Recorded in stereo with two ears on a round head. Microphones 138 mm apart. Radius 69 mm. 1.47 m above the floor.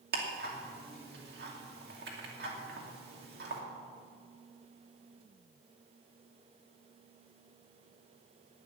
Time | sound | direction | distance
0.1 | ticking | 75° right (ahead or behind) | 2.5 m